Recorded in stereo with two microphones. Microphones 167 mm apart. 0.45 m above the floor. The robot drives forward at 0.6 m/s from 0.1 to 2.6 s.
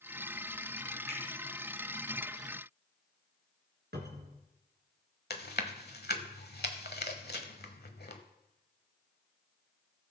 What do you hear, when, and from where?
1.1 s a finger snap: 80° left, 3.5 m; by 1.2 s 75° left (ahead or behind), 3.5 m
3.9 s a cupboard door: 80° right, 2 m
5.3 s chewing: 70° left (ahead or behind), 1.1 m